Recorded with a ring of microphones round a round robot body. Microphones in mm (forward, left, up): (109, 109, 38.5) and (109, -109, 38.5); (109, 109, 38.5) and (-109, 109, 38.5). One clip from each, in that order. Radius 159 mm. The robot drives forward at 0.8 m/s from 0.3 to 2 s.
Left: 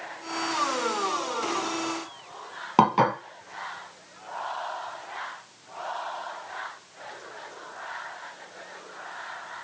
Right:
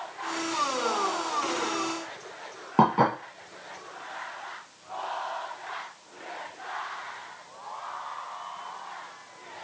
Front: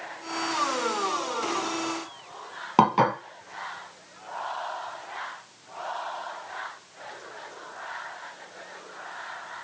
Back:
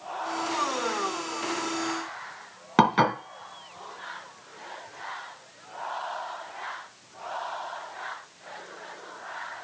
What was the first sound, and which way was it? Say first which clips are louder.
Dishes clattering: left 1 dB, front 1 dB; 125° left.